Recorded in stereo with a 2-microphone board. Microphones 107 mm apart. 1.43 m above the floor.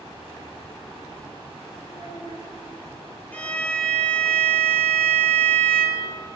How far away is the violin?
About 1.5 m.